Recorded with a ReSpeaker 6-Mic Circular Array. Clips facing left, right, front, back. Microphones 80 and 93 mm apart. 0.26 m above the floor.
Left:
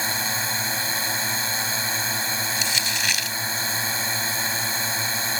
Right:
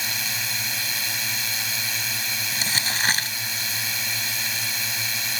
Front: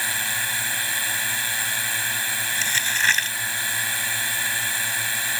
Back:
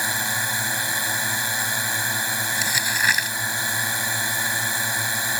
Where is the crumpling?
105° right.